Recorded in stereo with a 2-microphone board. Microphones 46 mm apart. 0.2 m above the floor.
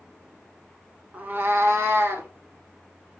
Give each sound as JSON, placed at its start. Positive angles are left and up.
{"t": 1.1, "sound": "a cat meowing", "side_deg": -35, "distance_m": 0.6}